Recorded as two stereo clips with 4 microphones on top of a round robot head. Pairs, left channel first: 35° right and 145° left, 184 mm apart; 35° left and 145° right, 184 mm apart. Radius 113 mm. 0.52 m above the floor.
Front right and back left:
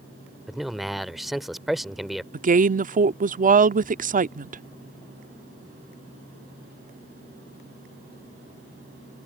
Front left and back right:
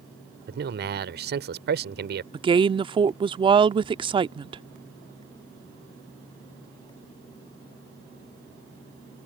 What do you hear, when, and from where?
0.5 s a man speaking: 125° right
2.3 s a woman speaking: 165° left